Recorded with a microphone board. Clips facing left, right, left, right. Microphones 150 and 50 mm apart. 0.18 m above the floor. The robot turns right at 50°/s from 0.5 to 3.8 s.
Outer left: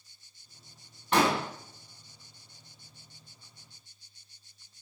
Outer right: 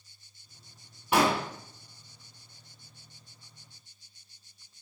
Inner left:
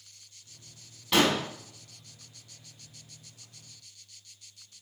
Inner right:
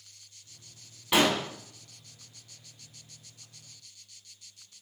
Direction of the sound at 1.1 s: 10° right (ahead or behind).